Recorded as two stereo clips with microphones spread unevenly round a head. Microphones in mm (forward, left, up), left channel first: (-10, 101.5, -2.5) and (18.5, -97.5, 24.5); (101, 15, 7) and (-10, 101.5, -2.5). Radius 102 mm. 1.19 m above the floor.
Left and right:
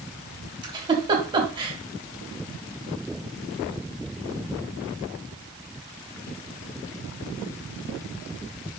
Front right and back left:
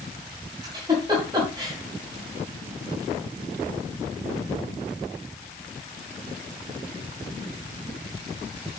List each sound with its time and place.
0.6 s a giggle: 145° right, 2 m